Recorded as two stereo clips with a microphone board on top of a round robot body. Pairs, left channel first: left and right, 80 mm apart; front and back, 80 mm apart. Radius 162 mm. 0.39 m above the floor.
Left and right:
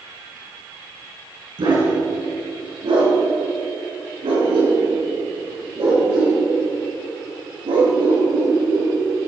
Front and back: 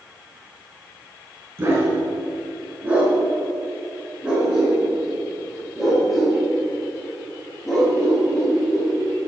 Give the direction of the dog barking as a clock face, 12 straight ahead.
4 o'clock.